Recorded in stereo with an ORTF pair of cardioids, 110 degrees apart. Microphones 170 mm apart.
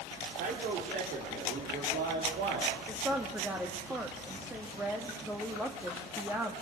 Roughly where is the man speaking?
Right.